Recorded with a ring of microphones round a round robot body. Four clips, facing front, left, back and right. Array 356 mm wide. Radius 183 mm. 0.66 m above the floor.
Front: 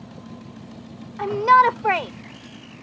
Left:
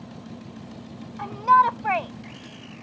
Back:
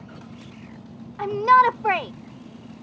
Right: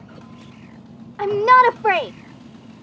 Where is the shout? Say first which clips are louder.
Right 5 dB, front 1 dB; 90° right.